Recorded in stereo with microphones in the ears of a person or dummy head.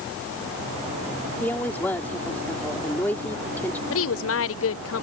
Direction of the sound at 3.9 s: 65° left (ahead or behind).